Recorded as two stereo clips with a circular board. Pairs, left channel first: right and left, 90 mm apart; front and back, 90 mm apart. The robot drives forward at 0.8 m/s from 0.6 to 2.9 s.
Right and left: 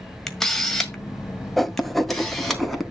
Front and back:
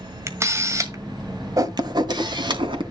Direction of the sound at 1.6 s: 175° right.